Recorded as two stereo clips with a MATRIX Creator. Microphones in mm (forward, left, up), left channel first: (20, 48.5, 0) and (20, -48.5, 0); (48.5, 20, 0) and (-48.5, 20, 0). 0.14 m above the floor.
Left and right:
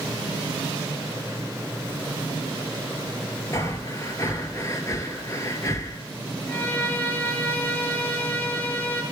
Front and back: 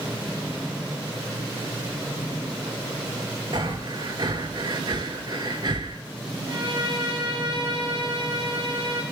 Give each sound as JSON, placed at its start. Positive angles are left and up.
{"t": 3.5, "sound": "breathing", "azimuth_deg": 140, "distance_m": 0.5}
{"t": 6.5, "sound": "a violin", "azimuth_deg": 160, "distance_m": 0.9}